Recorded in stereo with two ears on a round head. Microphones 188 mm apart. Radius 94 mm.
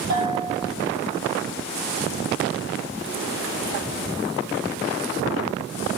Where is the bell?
50° right (ahead or behind), 6.5 m.